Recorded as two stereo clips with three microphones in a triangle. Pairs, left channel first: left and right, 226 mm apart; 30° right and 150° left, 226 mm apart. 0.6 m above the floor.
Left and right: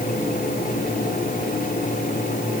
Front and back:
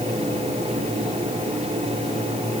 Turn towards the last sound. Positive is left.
No sound to turn to.